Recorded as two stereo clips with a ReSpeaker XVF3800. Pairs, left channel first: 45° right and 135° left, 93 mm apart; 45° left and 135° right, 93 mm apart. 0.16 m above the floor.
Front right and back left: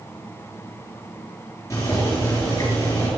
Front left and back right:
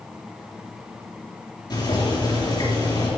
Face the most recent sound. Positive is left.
turn(degrees=10)